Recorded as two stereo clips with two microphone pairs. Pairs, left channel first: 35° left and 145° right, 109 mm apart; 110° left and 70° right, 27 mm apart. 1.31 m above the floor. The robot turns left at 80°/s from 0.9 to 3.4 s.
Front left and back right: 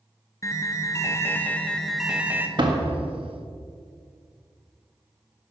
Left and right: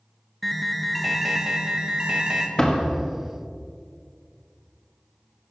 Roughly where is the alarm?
Ahead left.